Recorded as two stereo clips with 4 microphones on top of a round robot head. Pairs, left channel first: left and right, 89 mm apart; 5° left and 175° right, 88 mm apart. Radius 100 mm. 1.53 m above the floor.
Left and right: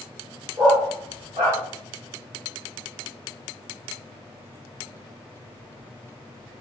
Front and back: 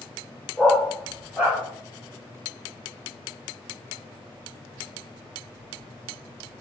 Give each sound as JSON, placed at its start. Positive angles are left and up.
{"t": 0.6, "sound": "a dog barking", "azimuth_deg": -85, "distance_m": 1.5}